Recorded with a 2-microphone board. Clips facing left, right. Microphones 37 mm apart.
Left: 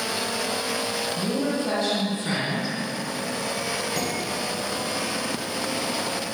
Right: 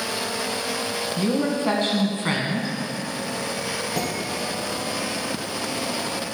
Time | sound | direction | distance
1.2 | a woman speaking | 45° right (ahead or behind) | 2.5 m
4.0 | dishes clattering | 10° right (ahead or behind) | 3.5 m